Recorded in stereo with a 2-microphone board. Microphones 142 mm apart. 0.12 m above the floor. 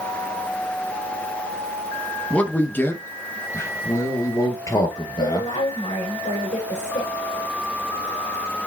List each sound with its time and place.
2.3 s a man speaking: 10° left (ahead or behind), 1.4 m; by 5.5 s 30° left (ahead or behind), 2.5 m
5.2 s a woman speaking: 70° left (ahead or behind), 5.5 m